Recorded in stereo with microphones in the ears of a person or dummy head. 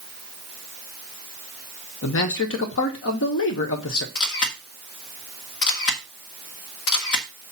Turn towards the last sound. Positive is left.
turn(degrees=65)  # may be behind; listen again after turning